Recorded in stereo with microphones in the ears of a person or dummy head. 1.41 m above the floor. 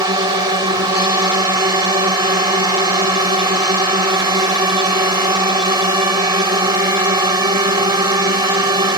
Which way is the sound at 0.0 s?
20° right (ahead or behind).